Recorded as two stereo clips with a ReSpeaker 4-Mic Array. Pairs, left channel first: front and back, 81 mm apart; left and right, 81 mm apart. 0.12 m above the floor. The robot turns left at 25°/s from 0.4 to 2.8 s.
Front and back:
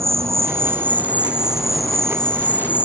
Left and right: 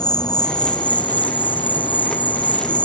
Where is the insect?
125° left; by 2.9 s 65° left.